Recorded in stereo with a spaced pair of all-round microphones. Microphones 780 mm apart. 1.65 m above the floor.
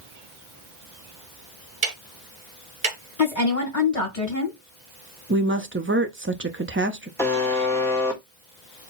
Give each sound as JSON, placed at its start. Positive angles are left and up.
{"t": 1.8, "sound": "ticking", "side_deg": -60, "distance_m": 1.5}
{"t": 3.2, "sound": "a woman speaking", "side_deg": 50, "distance_m": 1.9}
{"t": 5.3, "sound": "a woman speaking", "side_deg": -15, "distance_m": 0.6}
{"t": 7.2, "sound": "a buzzer", "side_deg": 5, "distance_m": 1.2}